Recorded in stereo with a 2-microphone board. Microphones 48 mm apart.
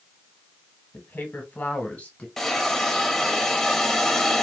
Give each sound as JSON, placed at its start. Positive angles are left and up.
{"t": 0.9, "sound": "a woman speaking", "side_deg": 40, "distance_m": 1.2}
{"t": 2.4, "sound": "a hiss", "side_deg": 5, "distance_m": 0.9}